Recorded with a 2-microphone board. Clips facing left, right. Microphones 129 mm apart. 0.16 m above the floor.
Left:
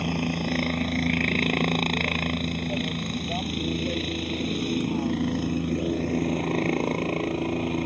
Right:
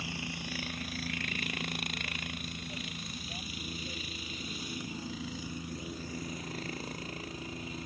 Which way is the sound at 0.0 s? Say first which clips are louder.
Left 14 dB; 60° left (ahead or behind).